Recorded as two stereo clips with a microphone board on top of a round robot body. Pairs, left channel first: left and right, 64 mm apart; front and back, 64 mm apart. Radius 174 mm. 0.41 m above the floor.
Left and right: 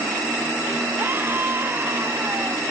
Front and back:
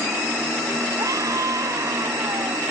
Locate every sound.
1.0 s a scream: 145° right